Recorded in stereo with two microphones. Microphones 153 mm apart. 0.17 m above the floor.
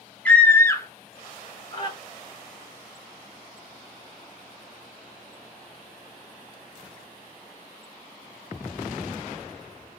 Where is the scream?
10° left (ahead or behind), 1.1 m; by 1.9 s 35° left (ahead or behind), 1.4 m.